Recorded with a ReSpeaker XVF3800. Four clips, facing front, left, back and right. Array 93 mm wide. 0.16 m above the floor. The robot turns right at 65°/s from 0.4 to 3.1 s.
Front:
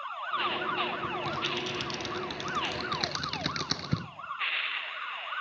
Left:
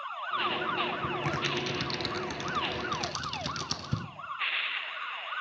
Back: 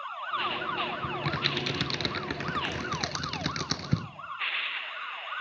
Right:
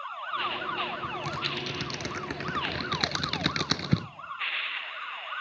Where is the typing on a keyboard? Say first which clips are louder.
Left 2 dB, back 1 dB; 130° left, 0.6 m; by 4.0 s 95° right, 0.6 m.